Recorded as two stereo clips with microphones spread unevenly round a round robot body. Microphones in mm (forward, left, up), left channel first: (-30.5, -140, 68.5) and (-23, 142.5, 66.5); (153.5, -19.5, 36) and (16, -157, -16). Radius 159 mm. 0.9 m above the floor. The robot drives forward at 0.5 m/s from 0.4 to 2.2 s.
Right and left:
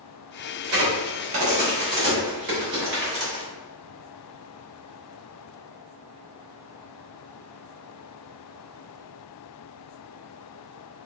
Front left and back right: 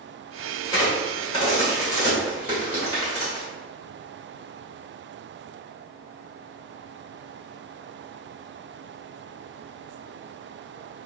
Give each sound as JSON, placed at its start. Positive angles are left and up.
{"t": 0.6, "sound": "a crack", "azimuth_deg": 115, "distance_m": 1.4}